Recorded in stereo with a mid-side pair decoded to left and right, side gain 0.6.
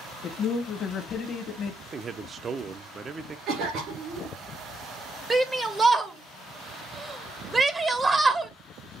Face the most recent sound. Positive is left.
turn(degrees=-20)